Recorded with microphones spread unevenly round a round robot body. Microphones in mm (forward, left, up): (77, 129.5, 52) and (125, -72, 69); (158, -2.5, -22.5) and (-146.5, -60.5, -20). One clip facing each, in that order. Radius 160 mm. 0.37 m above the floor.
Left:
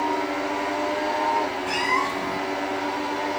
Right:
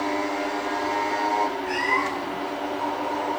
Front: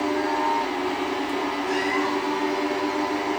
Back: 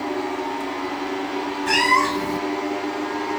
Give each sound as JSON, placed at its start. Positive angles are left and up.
{"t": 1.7, "sound": "a cat meowing", "azimuth_deg": 165, "distance_m": 1.0}